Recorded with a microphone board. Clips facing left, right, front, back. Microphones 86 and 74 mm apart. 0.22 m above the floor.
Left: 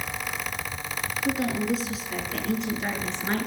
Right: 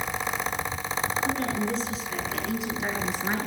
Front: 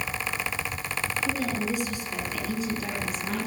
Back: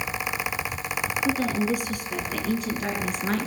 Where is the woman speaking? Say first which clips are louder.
Left 6 dB, back 6 dB; 170° left, 3 m; by 3.5 s 165° right, 3.5 m.